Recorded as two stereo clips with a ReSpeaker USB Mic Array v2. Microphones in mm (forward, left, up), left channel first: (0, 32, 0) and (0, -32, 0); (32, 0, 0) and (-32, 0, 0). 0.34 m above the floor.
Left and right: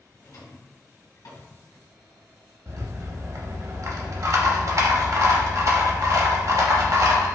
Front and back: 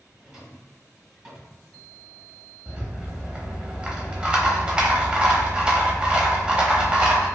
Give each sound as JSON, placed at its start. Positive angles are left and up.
{"t": 0.2, "sound": "a drawer", "azimuth_deg": 100, "distance_m": 1.5}
{"t": 2.7, "sound": "a rattle", "azimuth_deg": -105, "distance_m": 0.7}